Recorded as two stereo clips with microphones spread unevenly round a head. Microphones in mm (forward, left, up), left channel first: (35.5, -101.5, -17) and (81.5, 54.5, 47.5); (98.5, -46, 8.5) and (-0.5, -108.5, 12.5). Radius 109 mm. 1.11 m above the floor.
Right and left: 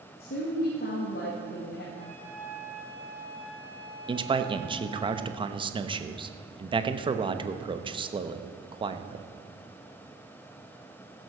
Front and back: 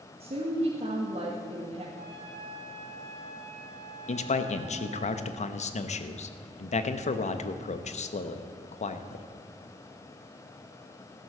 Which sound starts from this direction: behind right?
A woman speaking, at 0.2 s.